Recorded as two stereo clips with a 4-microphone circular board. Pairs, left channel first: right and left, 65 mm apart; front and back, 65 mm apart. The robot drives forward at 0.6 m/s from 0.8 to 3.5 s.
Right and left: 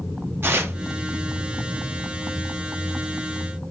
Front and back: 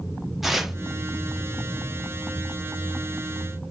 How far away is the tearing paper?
About 0.6 m.